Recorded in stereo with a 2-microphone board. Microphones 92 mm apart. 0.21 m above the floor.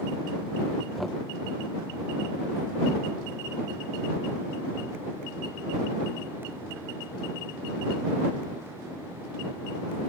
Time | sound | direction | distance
1.0 | knocking | centre (ahead or behind) | ?